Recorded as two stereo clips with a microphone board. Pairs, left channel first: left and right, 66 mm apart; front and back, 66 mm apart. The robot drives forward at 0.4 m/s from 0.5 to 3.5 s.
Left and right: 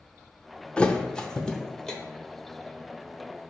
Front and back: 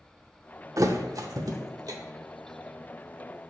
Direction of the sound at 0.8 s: 160° left.